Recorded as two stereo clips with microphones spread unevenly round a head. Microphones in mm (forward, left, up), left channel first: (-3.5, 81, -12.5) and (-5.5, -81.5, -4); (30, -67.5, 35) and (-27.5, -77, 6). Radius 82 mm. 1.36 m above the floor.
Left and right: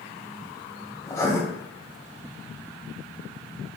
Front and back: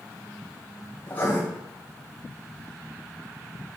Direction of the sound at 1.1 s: 20° left.